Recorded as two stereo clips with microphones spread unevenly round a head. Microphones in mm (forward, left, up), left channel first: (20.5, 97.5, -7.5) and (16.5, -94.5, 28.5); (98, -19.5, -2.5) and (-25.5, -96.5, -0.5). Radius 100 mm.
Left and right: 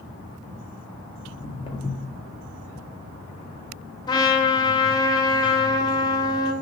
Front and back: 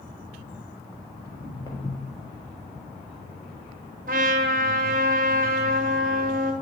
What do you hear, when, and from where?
1.2 s footsteps: 40° left, 1.4 m
4.1 s a trumpet: 160° left, 0.6 m